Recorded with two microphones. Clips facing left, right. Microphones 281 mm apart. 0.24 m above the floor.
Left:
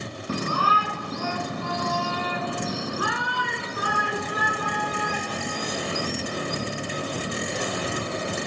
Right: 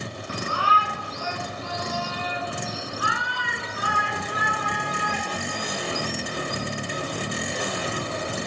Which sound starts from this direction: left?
A shout, at 0.3 s.